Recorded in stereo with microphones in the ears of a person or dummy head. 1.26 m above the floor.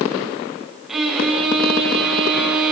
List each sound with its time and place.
0.9 s a violin: centre (ahead or behind), 6.5 m